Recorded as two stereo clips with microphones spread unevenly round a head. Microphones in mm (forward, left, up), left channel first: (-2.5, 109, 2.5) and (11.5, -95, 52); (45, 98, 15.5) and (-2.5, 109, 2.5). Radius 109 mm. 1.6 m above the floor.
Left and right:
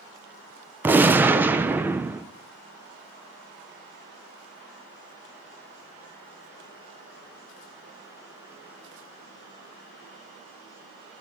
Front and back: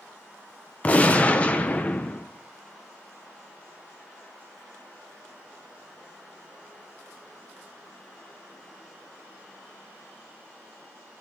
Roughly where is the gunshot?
Ahead right.